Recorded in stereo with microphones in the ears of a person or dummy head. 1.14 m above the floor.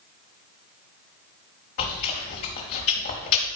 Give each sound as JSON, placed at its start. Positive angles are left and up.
{"t": 1.8, "sound": "chewing", "side_deg": 35, "distance_m": 1.2}